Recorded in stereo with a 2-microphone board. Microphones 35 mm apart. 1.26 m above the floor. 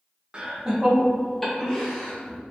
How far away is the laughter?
About 0.9 m.